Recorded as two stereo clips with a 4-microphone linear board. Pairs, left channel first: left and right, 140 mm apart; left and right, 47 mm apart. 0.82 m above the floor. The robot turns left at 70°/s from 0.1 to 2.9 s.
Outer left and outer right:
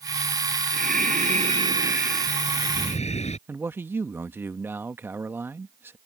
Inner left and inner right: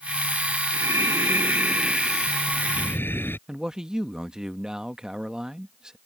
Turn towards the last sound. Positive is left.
turn(degrees=-15)  # may be behind; listen again after turning